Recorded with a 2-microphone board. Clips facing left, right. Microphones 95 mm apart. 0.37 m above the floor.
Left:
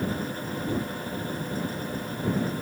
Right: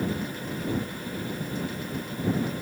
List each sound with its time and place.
Only background noise.